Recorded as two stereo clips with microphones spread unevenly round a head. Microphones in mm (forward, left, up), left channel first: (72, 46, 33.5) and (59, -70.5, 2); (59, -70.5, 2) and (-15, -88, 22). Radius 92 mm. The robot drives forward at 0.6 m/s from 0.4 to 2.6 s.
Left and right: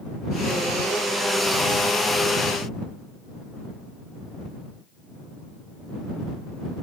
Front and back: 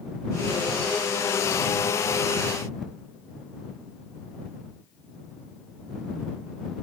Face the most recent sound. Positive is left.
No sound to turn to.